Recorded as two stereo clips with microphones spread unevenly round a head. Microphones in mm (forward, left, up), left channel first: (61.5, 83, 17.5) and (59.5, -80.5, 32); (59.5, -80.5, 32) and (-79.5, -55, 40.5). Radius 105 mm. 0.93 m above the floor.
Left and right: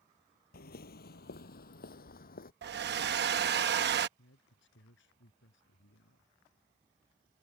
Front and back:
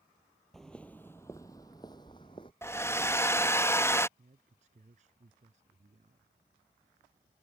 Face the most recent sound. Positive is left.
turn(degrees=115)